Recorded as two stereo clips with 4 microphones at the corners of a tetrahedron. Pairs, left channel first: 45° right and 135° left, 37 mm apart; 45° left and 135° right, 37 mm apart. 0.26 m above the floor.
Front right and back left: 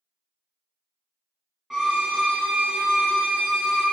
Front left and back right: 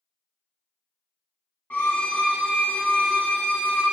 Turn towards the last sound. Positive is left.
turn(degrees=55)